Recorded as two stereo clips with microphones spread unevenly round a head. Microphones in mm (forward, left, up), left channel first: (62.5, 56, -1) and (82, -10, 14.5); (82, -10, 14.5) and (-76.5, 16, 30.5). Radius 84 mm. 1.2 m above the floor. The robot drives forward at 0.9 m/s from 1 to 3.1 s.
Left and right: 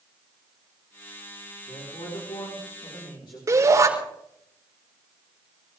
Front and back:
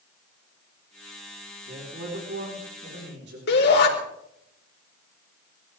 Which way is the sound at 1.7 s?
140° left.